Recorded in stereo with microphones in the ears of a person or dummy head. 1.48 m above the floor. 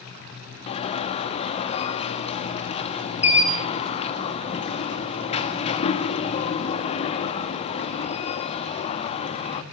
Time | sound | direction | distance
0.7 | an alarm | 30° left (ahead or behind) | 1.8 m